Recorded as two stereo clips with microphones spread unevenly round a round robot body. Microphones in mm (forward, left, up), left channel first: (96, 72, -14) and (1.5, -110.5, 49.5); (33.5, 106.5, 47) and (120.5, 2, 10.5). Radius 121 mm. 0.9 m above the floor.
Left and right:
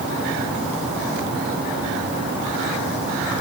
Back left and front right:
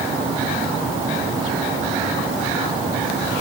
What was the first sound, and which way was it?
Only background noise.